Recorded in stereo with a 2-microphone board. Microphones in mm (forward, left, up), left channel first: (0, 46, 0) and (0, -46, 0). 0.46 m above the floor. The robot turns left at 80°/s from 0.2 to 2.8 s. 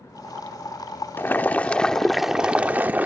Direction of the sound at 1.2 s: 25° left (ahead or behind).